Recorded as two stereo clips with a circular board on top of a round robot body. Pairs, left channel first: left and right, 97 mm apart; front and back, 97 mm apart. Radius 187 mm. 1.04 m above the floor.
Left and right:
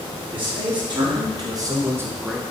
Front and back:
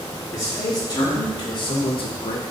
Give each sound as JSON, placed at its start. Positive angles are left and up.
{"t": 0.3, "sound": "a man speaking", "azimuth_deg": -55, "distance_m": 3.5}